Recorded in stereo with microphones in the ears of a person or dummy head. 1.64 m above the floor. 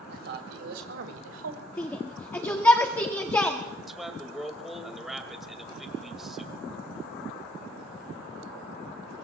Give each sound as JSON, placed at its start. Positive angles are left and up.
{"t": 0.1, "sound": "a man speaking", "side_deg": -65, "distance_m": 3.0}
{"t": 1.8, "sound": "a shout", "side_deg": 20, "distance_m": 1.0}
{"t": 3.9, "sound": "a man speaking", "side_deg": -5, "distance_m": 2.5}